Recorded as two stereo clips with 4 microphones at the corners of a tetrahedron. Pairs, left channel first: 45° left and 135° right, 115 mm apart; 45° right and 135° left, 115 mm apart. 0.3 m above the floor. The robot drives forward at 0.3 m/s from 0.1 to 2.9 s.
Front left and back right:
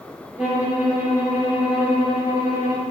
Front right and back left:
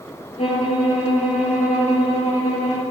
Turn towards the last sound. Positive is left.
turn(degrees=-70)